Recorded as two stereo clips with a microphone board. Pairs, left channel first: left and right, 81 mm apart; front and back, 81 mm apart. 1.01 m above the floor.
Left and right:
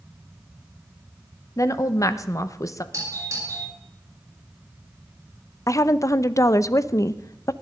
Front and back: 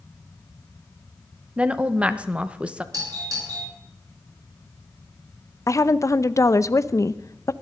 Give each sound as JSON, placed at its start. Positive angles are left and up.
{"t": 1.6, "sound": "a woman speaking", "azimuth_deg": 110, "distance_m": 1.0}
{"t": 2.9, "sound": "a doorbell", "azimuth_deg": -140, "distance_m": 8.5}
{"t": 5.7, "sound": "a woman speaking", "azimuth_deg": 45, "distance_m": 0.6}